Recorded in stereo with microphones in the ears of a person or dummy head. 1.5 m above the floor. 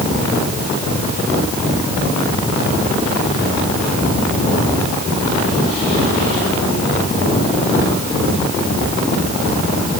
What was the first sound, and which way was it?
Only background noise.